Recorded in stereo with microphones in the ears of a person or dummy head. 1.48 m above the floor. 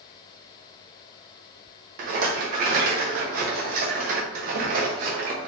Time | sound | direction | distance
2.0 | a rattle | 50° right (ahead or behind) | 0.9 m